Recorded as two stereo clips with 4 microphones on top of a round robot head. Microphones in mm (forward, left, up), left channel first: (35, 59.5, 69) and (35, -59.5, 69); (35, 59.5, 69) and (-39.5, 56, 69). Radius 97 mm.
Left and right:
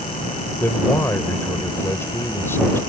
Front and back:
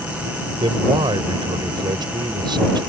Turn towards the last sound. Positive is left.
turn(degrees=165)